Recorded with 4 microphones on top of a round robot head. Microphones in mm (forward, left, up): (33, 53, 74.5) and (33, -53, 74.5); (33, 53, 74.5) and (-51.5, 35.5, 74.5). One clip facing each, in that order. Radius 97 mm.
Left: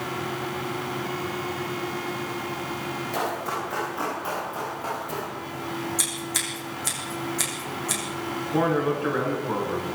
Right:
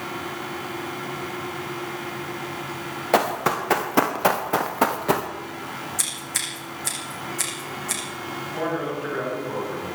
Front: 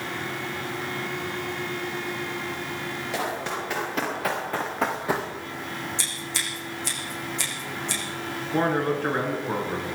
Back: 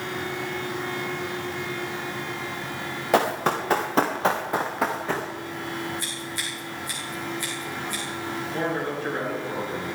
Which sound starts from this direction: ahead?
Scissors, at 6.0 s.